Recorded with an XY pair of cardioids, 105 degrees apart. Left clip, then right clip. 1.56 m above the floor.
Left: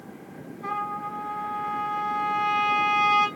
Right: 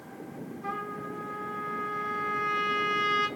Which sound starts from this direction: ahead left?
A trumpet, at 0.6 s.